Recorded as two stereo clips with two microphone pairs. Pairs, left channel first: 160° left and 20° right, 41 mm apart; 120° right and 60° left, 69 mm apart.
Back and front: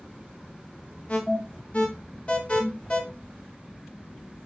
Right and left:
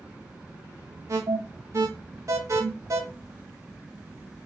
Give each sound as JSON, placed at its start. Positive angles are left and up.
{"t": 1.1, "sound": "an alarm", "azimuth_deg": 100, "distance_m": 0.7}